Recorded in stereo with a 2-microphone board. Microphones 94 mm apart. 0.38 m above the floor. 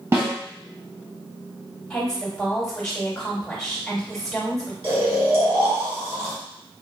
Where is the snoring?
80° right, 1.3 m.